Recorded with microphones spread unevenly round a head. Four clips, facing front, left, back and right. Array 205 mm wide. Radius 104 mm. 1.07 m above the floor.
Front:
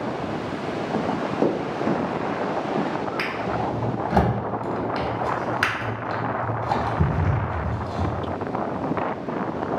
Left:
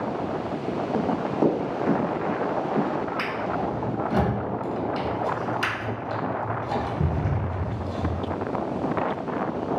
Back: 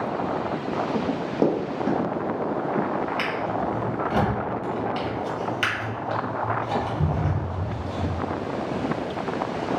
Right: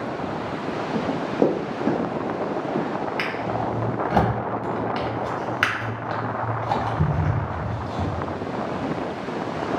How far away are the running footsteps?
About 1.1 m.